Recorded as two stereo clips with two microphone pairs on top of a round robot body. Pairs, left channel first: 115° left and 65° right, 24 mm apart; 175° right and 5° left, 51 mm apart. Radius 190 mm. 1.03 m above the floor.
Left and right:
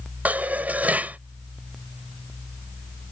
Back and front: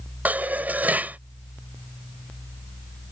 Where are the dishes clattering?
55° right.